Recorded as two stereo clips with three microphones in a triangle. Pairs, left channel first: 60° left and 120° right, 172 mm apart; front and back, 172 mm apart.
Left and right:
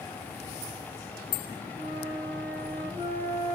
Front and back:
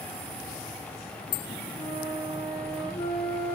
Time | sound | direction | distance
1.8 | a flute | 75° right | 9.5 m